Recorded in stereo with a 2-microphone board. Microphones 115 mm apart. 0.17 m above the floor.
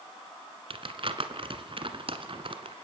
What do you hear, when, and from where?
0.7 s crumpling: 50° right (ahead or behind), 1.6 m